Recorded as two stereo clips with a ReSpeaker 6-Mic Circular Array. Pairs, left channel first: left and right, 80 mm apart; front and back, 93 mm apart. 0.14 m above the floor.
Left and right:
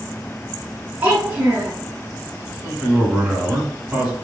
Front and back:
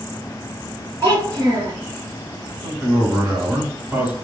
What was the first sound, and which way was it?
A child speaking, 145° right.